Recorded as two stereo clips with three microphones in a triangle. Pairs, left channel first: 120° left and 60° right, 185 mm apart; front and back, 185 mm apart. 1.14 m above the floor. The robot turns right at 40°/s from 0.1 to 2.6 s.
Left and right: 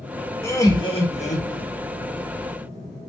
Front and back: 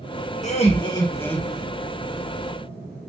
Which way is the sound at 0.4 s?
45° left.